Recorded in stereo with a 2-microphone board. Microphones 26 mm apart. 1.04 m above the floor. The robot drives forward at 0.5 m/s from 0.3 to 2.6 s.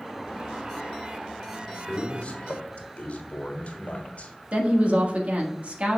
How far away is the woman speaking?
About 1.5 m.